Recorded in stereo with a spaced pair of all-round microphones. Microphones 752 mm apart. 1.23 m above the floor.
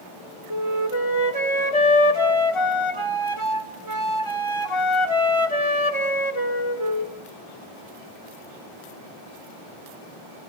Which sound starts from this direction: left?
A flute, at 0.5 s.